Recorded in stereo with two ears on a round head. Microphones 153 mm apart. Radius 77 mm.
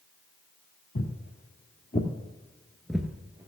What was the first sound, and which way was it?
Footsteps, 55° left (ahead or behind).